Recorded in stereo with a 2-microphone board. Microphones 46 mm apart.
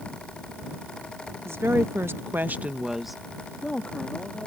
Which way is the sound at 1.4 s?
70° right (ahead or behind).